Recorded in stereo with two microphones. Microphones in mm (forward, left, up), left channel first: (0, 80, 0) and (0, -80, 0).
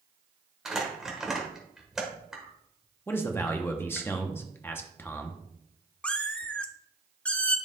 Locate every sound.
0.7 s crumpling: 5° right (ahead or behind), 1.6 m
3.1 s a man speaking: 15° left (ahead or behind), 0.8 m
6.0 s a cat meowing: 10° left (ahead or behind), 0.6 m